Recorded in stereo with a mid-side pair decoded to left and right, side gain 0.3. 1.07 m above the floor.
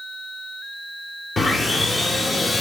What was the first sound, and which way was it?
Sawing, 45° left.